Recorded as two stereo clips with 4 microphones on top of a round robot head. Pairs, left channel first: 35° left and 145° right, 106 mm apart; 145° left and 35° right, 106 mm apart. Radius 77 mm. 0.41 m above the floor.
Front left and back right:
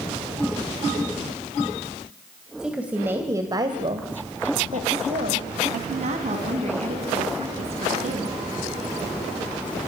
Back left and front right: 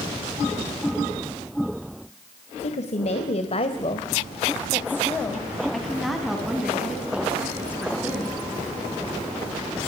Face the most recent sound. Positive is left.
turn(degrees=-110)